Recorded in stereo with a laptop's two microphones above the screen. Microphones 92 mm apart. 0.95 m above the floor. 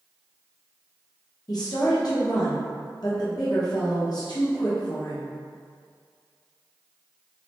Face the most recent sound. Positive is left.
turn(degrees=50)  # may be behind; listen again after turning